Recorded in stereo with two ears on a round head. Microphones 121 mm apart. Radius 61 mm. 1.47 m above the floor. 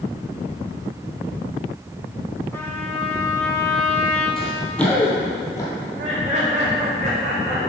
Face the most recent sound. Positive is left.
turn(degrees=-55)  # may be behind; listen again after turning